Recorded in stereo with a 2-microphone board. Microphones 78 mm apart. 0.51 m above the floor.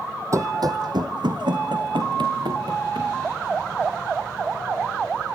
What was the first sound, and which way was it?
Running footsteps, 45° right (ahead or behind).